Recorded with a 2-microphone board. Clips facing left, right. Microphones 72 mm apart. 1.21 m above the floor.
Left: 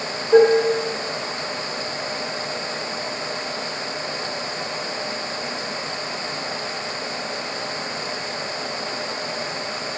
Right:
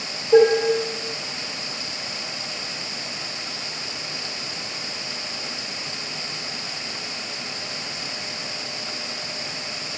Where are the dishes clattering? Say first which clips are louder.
Left 1 dB; 10° left (ahead or behind), 2.5 m.